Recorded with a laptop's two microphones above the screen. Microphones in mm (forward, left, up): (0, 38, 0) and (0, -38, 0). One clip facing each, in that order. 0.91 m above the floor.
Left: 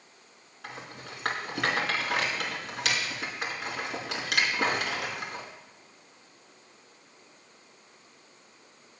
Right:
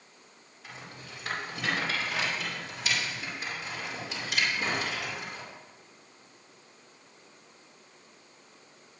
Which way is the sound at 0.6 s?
80° left.